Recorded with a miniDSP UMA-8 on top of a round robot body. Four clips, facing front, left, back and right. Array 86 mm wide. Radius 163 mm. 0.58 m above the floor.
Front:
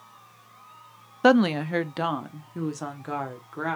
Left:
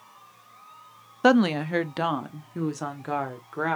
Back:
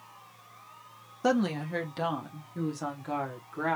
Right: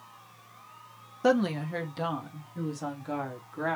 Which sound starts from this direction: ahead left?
A woman speaking, at 1.2 s.